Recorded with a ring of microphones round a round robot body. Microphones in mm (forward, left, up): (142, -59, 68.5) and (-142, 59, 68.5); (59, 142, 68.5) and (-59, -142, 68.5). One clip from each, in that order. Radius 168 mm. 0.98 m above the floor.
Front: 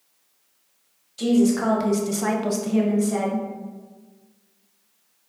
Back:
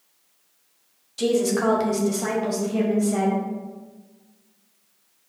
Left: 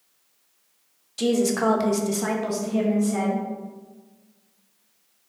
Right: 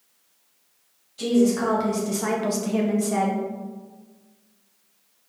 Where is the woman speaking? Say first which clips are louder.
Even, even; 85° left, 0.9 m; by 3.5 s 80° right, 1.1 m.